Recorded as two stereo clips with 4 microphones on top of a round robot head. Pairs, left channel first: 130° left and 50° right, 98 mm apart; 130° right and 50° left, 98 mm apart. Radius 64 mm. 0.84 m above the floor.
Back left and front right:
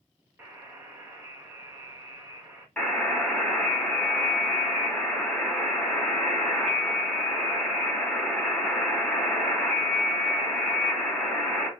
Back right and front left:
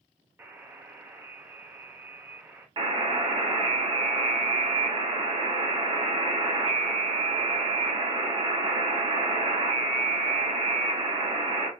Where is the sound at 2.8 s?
50° left, 1.3 m.